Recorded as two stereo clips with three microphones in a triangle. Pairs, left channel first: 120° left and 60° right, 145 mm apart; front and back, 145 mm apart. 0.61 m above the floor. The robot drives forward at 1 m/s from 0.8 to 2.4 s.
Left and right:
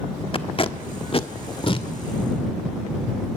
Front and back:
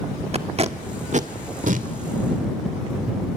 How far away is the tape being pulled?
About 1.2 m.